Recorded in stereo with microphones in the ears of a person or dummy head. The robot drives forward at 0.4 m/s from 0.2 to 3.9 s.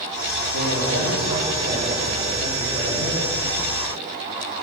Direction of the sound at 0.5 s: 55° right (ahead or behind).